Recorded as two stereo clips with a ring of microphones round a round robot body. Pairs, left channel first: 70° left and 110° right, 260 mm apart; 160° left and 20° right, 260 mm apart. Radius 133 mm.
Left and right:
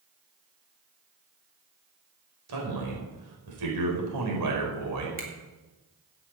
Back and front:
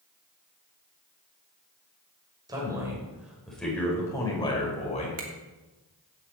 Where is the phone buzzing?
I don't hear a phone buzzing.